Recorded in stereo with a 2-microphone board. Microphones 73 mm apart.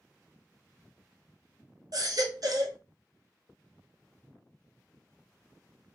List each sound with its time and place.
1.9 s a baby crying: 55° right (ahead or behind), 0.6 m